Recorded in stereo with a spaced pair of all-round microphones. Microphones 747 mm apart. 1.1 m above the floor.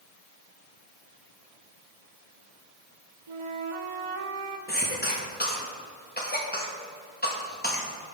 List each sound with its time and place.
3.3 s a flute: 45° right (ahead or behind), 0.7 m
4.7 s a cough: 10° left (ahead or behind), 1.5 m